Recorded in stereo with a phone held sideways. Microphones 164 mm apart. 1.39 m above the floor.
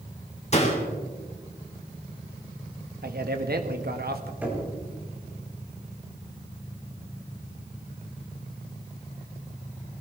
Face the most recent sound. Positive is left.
turn(degrees=-10)  # may be behind; listen again after turning